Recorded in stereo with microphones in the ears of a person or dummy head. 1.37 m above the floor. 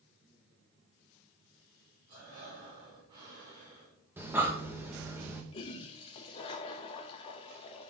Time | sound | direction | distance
2.1 | breathing | 25° right (ahead or behind) | 3 m
4.2 | breathing | 15° right (ahead or behind) | 0.9 m
5.5 | a toilet flushing | 30° left (ahead or behind) | 0.7 m